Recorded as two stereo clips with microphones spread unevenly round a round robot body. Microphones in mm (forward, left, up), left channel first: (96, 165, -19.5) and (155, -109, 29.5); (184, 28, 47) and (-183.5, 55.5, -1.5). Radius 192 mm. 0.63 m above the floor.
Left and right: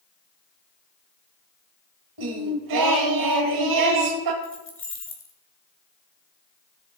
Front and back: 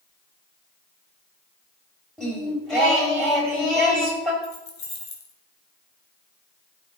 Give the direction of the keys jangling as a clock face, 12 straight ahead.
10 o'clock.